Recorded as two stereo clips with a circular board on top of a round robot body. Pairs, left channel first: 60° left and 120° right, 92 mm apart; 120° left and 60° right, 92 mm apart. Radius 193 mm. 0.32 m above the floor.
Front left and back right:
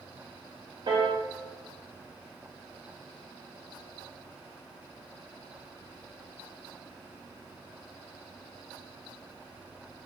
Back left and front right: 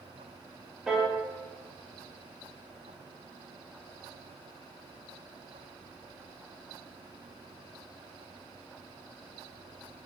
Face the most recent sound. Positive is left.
turn(degrees=-140)